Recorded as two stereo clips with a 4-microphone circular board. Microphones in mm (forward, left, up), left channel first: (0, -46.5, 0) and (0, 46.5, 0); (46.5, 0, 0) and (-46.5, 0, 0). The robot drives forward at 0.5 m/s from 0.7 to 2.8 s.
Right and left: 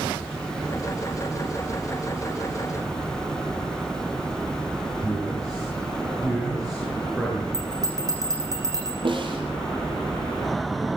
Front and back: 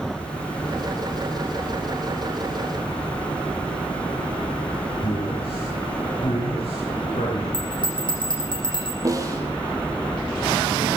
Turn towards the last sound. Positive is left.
turn(degrees=120)